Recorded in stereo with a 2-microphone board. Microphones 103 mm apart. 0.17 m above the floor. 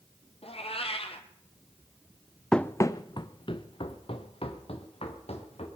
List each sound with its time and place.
0.4 s a cat meowing: 70° left (ahead or behind), 1.5 m
2.5 s running footsteps: 5° left (ahead or behind), 0.6 m; by 5.7 s 70° left (ahead or behind), 3 m